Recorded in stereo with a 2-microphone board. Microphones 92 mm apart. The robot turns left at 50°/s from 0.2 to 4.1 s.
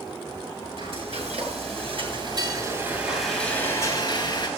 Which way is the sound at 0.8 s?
55° right.